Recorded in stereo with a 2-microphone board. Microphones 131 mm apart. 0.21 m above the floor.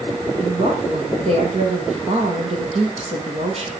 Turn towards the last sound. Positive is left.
turn(degrees=-55)  # may be behind; listen again after turning